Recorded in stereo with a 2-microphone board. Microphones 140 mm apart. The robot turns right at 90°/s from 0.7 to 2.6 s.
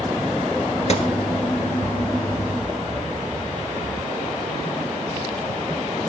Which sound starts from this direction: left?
A gunshot, at 0.9 s.